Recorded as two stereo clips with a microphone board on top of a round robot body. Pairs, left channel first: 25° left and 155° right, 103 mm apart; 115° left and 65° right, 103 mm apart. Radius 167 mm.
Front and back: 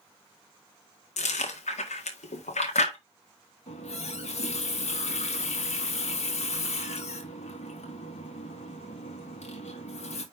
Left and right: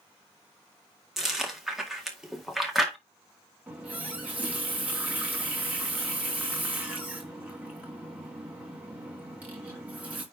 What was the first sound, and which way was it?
Chewing, 20° left.